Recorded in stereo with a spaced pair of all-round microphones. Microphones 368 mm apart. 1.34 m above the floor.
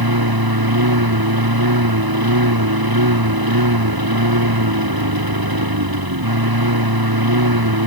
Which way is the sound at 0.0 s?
70° right (ahead or behind).